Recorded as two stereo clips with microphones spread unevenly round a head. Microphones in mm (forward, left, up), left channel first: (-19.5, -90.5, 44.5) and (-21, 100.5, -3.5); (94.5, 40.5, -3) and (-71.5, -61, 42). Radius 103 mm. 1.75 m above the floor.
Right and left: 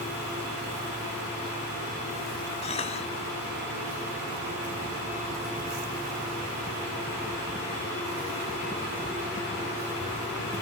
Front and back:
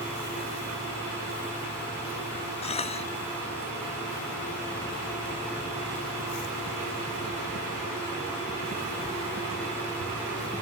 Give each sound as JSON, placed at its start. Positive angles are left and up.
{"t": 2.6, "sound": "a cough", "azimuth_deg": -30}